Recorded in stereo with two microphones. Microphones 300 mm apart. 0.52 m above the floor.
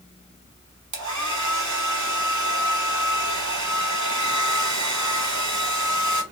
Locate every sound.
0.9 s a hair dryer: 75° right (ahead or behind), 0.8 m